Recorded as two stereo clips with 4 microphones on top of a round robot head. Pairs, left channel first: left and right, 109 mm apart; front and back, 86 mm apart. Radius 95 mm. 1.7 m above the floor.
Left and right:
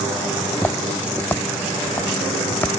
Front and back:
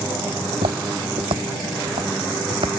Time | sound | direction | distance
0.4 | footsteps | 165° left | ?